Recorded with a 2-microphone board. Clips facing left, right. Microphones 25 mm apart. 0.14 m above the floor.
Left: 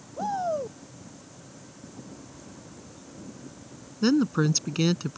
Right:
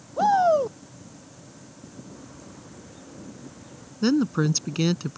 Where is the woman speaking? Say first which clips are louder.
Right 1 dB; centre (ahead or behind).